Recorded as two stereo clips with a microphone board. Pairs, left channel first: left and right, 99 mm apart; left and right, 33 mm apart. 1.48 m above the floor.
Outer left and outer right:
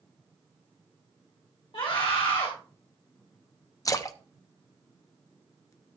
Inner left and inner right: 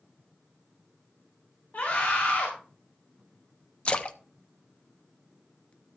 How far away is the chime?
No chime in this recording.